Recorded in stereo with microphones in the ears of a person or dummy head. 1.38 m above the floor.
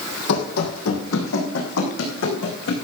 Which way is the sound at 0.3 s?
65° left (ahead or behind).